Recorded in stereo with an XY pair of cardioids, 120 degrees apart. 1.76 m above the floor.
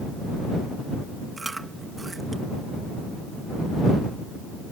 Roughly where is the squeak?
No squeak in this recording.